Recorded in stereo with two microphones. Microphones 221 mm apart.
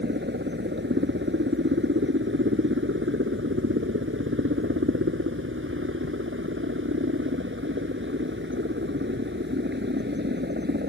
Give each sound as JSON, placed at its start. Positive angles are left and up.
{"t": 0.0, "sound": "a helicopter", "side_deg": -55}